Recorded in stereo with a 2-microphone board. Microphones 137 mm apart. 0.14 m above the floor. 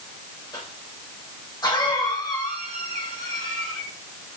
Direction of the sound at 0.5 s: 30° left (ahead or behind).